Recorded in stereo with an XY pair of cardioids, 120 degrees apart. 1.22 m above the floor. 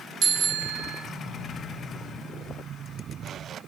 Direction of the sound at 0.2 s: 65° right.